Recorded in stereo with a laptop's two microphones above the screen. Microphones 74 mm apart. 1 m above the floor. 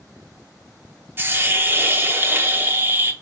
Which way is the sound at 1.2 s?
30° right (ahead or behind).